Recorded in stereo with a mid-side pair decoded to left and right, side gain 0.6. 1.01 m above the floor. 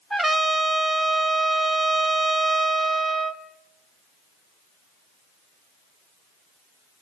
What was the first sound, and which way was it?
A trumpet, 25° right.